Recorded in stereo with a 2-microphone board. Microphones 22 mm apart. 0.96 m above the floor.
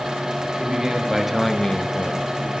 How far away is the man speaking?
About 1.8 m.